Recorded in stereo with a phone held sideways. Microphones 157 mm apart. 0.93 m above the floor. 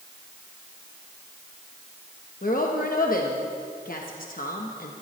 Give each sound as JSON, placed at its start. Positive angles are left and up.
{"t": 2.4, "sound": "a woman speaking", "side_deg": 65, "distance_m": 1.0}